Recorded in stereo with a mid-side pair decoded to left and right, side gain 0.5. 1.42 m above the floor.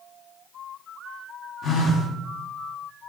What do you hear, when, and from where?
1.6 s a phone buzzing: 45° left, 0.9 m